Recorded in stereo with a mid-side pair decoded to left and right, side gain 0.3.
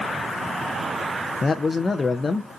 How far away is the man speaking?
About 0.6 m.